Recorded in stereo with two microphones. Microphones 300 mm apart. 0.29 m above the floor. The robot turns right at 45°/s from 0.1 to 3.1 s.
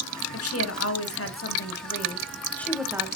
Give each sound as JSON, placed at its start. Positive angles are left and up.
{"t": 0.3, "sound": "a woman speaking", "azimuth_deg": 70, "distance_m": 1.3}